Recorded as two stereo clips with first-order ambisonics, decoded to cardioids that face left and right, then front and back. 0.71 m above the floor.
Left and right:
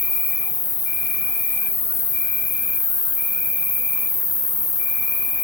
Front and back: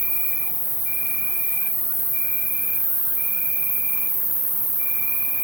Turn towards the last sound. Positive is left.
turn(degrees=95)